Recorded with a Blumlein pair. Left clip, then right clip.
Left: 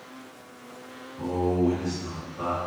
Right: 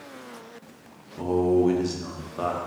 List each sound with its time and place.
1.2 s a man speaking: 40° right, 0.7 m